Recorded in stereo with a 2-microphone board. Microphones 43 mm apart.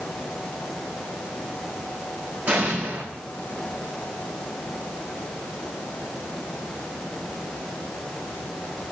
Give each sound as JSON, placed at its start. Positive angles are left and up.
{"t": 2.5, "sound": "an explosion", "side_deg": -35, "distance_m": 6.0}